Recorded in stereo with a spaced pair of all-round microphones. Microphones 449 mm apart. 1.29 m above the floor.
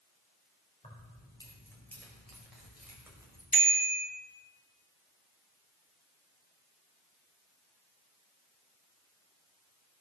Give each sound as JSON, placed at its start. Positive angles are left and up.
{"t": 0.8, "sound": "keys jangling", "side_deg": 15, "distance_m": 3.5}
{"t": 3.5, "sound": "a bicycle bell", "side_deg": 50, "distance_m": 3.0}